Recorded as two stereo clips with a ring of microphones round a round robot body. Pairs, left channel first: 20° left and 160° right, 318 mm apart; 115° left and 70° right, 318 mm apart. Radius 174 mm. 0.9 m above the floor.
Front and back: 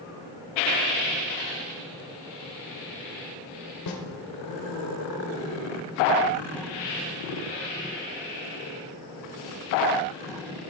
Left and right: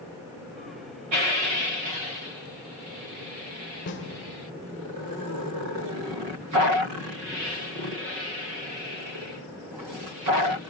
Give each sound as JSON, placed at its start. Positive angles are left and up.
{"t": 3.9, "sound": "a snare drum", "azimuth_deg": 55, "distance_m": 1.9}